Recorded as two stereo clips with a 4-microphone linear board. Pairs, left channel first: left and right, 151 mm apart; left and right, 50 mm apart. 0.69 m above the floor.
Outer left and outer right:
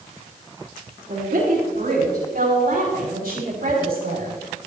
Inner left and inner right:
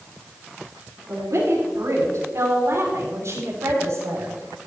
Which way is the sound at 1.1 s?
60° right (ahead or behind).